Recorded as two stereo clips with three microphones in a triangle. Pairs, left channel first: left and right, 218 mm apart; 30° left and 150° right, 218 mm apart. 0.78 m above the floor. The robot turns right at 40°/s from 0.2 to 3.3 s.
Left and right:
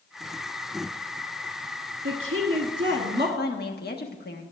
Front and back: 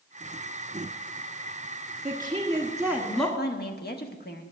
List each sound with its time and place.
2.0 s a woman speaking: 90° right, 1.4 m; by 3.3 s 40° right, 1.4 m
3.4 s a woman speaking: 60° left, 1.2 m